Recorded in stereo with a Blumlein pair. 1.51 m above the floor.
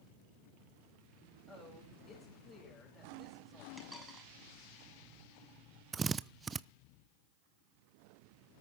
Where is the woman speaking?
25° left, 8 m.